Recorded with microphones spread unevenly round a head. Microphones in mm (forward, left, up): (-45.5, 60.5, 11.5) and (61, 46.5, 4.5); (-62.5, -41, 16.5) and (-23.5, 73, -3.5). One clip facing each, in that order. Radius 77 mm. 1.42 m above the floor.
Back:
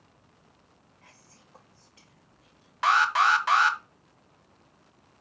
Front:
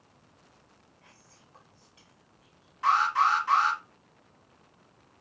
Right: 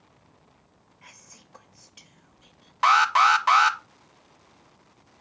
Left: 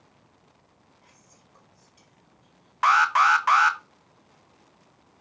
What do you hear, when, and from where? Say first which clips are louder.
1.0 s whispering: back 1 dB, right 4 dB; 125° right, 0.7 m
2.8 s an alarm: back 2 dB, right 1 dB; 170° right, 1.0 m